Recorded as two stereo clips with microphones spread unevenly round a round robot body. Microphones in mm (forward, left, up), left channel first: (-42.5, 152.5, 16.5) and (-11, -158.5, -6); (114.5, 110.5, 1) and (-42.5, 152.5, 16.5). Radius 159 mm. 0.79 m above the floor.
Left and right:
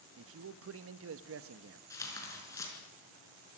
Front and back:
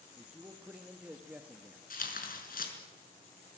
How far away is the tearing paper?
About 5 m.